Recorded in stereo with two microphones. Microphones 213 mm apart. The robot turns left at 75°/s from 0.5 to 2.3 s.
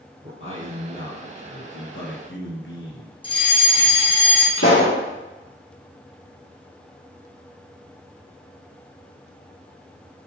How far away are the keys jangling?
I don't hear keys jangling.